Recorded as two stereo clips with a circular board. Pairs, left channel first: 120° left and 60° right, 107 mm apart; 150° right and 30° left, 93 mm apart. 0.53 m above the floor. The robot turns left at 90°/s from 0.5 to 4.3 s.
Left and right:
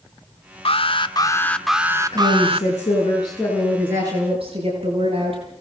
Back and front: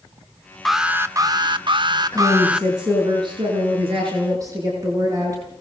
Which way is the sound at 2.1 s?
170° left.